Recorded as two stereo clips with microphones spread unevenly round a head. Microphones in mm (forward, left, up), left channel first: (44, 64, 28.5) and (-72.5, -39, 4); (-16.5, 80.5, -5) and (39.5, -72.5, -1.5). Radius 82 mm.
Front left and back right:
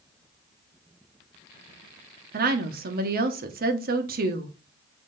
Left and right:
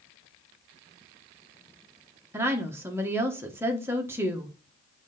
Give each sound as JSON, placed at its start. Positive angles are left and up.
{"t": 2.3, "sound": "a woman speaking", "azimuth_deg": -145, "distance_m": 1.3}